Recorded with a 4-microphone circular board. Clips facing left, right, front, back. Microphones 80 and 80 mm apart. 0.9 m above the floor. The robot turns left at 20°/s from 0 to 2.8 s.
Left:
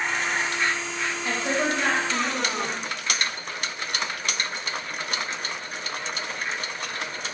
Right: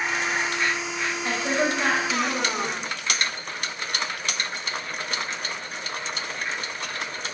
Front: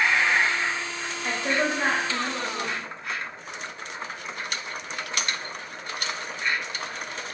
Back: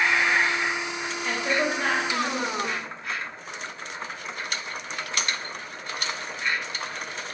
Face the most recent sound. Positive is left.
turn(degrees=-70)